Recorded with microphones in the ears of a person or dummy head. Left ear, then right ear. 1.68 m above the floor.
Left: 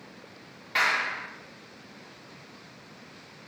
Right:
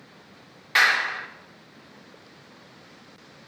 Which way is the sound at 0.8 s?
20° right (ahead or behind).